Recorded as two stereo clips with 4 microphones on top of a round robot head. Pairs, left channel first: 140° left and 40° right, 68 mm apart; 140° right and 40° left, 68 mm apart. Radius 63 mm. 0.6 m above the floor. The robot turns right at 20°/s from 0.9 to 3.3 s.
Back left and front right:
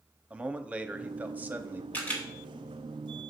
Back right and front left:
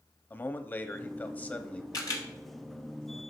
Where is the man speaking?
100° right, 1.0 m; by 1.8 s 80° right, 1.0 m.